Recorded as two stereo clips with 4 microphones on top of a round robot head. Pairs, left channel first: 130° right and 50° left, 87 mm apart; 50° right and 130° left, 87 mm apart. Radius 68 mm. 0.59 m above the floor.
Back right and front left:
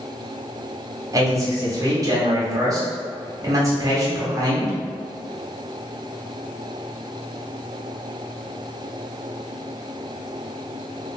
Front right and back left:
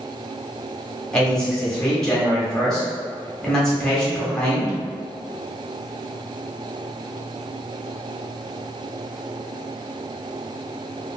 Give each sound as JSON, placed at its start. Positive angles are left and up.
{"t": 1.1, "sound": "a man speaking", "azimuth_deg": 30, "distance_m": 1.0}